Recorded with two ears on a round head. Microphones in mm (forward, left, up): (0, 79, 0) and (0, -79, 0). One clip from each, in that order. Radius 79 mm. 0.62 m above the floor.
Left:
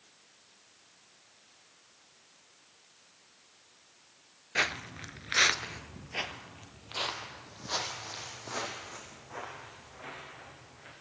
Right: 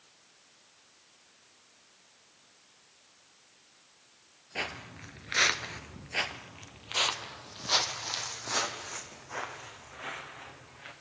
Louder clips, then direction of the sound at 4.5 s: Left 6 dB; 40° left (ahead or behind).